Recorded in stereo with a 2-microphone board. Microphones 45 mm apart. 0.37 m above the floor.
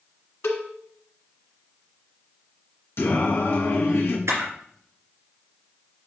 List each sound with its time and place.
0.4 s a cowbell: 70° left (ahead or behind), 1.6 m
3.0 s singing: 65° left (ahead or behind), 1.9 m
4.3 s a camera shutter: 75° right (ahead or behind), 3 m